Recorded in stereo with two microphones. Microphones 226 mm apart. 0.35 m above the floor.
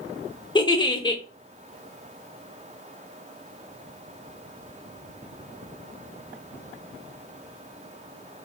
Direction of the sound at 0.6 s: 20° left (ahead or behind).